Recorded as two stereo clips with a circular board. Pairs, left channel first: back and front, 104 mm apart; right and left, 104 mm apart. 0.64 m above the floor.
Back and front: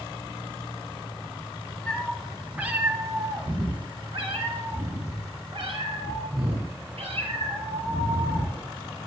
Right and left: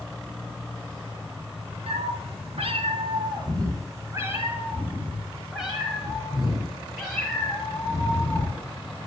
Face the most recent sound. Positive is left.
turn(degrees=-10)